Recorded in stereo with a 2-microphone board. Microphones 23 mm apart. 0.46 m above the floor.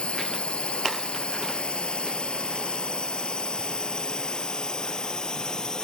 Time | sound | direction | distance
0.0 | a drone | 55° left (ahead or behind) | ?